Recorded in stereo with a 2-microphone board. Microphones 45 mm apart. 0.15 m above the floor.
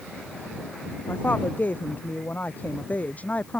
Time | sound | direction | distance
1.1 | a woman speaking | 45° left (ahead or behind) | ?